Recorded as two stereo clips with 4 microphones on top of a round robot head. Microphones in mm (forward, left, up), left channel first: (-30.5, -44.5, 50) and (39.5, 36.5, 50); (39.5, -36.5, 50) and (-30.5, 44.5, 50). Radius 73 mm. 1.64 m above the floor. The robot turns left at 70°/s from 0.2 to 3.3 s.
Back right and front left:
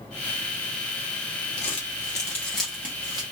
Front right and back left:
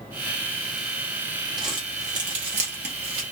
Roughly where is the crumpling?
Behind right.